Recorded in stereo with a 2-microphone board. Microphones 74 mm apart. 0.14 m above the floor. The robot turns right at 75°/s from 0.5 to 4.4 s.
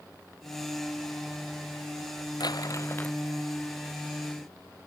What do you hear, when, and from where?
2.4 s crumpling: 110° left; by 3.2 s 165° left